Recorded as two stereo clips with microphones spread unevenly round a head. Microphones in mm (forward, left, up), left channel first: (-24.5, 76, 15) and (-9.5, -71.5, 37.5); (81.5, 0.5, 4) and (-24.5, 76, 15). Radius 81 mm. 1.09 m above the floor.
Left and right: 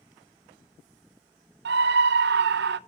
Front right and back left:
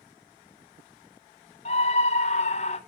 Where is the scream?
80° right, 0.8 m.